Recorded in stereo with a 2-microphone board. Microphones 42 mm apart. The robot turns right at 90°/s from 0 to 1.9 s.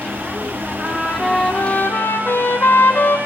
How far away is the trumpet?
About 4 m.